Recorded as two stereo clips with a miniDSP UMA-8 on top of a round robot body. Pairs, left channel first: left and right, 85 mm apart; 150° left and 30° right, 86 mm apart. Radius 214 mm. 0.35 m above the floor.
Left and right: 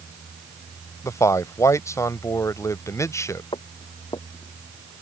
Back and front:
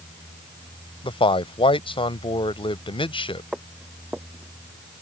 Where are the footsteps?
55° left; by 5.0 s 20° left.